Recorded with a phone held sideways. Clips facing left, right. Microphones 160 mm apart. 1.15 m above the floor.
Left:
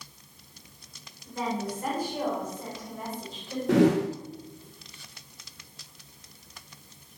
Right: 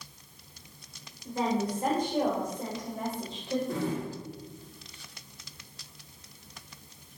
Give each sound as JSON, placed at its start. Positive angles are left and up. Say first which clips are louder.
{"t": 1.2, "sound": "a woman speaking", "louder": "right 3 dB", "side_deg": -30, "distance_m": 4.0}
{"t": 3.7, "sound": "a whoosh", "louder": "left 11 dB", "side_deg": 85, "distance_m": 0.6}